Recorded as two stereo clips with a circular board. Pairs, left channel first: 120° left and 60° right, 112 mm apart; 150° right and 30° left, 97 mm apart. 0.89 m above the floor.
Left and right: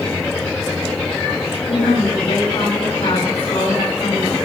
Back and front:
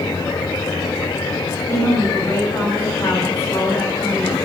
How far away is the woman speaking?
About 4.5 m.